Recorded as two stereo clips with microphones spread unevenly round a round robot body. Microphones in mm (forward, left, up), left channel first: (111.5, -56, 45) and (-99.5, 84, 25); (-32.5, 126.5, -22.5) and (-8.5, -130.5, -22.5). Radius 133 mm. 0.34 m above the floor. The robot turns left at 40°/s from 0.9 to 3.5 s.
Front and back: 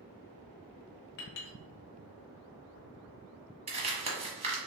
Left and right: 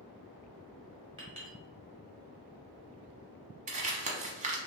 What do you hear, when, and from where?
1.2 s a clink: 15° right, 1.2 m; by 1.6 s 30° right, 1.2 m
3.7 s crumpling: 150° right, 1.0 m